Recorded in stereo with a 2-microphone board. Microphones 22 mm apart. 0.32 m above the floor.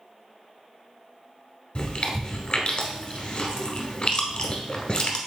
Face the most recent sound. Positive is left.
turn(degrees=50)  # may be behind; listen again after turning